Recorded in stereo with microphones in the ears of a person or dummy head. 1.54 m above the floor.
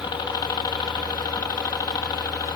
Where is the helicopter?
25° left (ahead or behind).